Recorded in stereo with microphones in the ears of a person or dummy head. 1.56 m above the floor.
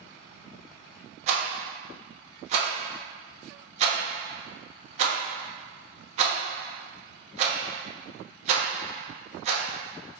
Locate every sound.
1.3 s a rattle: 45° right (ahead or behind), 1.0 m